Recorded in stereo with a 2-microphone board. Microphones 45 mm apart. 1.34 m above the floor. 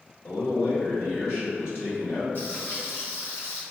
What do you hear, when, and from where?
0.2 s a man speaking: 60° left (ahead or behind), 1.5 m
2.4 s frying: 50° left (ahead or behind), 1.2 m